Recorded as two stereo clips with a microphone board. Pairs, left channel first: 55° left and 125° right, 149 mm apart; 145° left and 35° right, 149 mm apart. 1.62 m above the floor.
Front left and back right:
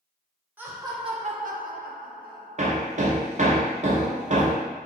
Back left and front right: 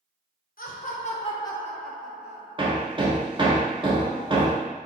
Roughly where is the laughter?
Behind.